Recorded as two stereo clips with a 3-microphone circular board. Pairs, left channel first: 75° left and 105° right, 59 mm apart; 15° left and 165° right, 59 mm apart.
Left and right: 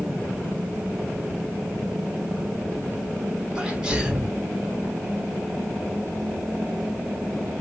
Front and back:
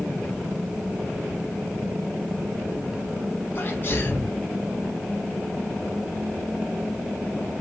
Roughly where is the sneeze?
Ahead right.